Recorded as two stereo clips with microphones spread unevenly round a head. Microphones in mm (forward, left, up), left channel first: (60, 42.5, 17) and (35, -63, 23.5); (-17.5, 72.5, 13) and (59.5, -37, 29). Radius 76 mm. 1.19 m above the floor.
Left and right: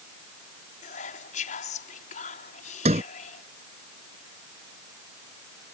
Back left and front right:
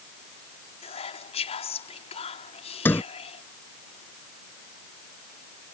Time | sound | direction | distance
0.8 | whispering | 85° left | ?
2.9 | a sliding door | 155° right | ?